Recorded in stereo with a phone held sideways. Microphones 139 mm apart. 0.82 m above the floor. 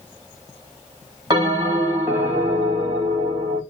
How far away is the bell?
About 1.7 m.